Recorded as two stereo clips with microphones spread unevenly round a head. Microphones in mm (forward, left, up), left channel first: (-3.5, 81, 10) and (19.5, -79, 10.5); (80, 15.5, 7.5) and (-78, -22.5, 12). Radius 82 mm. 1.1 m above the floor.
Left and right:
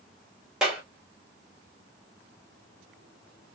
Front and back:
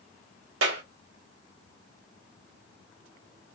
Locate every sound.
0.6 s a clap: 170° right, 2 m